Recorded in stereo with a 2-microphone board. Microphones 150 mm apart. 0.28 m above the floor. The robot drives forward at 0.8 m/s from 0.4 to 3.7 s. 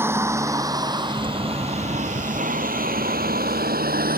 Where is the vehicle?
15° right (ahead or behind); by 4.2 s 80° right.